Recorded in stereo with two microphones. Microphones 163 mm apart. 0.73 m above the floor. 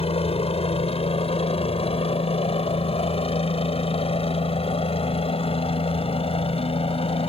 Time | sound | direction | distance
0.0 | a helicopter | 40° left (ahead or behind) | ?